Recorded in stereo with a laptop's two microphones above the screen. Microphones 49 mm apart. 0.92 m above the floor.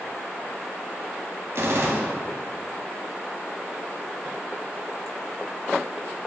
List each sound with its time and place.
1.6 s a gunshot: 60° right (ahead or behind), 2 m